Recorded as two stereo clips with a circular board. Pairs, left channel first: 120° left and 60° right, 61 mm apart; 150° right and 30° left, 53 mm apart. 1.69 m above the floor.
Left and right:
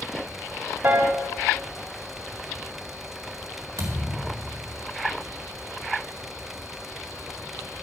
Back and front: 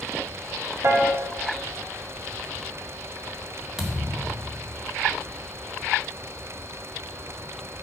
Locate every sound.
0.8 s a piano: 10° right, 1.4 m
3.8 s a thud: 50° right, 2 m